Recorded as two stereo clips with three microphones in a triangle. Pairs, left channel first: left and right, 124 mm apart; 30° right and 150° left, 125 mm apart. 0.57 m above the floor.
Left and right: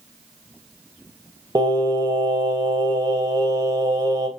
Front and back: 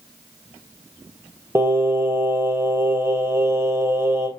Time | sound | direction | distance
1.6 | singing | 145° right | 2.5 m